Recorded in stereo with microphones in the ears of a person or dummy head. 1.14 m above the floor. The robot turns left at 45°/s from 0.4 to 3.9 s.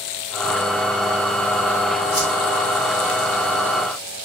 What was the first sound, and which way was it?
A whoosh, 30° left (ahead or behind).